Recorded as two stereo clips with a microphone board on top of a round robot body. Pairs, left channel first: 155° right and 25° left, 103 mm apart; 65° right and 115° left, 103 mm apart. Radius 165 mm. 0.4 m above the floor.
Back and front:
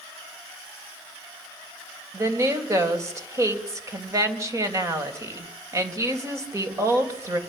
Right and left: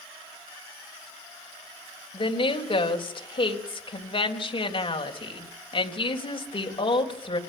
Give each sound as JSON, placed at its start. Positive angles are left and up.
{"t": 2.1, "sound": "a woman speaking", "azimuth_deg": -35, "distance_m": 3.5}